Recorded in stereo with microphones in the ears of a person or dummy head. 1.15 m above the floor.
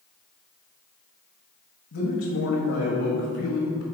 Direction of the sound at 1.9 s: 65° left (ahead or behind).